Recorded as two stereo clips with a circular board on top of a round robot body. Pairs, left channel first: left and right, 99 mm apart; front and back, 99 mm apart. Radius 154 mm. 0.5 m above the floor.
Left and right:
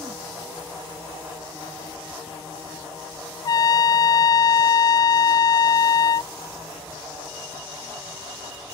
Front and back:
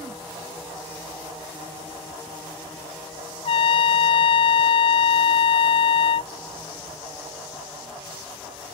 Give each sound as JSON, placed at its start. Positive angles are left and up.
{"t": 3.5, "sound": "a trumpet", "azimuth_deg": 35}